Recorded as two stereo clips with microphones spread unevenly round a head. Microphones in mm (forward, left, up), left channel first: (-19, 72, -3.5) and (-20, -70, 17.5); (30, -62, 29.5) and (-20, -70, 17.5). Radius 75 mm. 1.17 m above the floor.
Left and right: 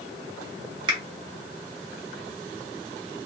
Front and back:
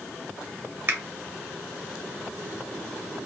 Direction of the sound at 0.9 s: 145° right.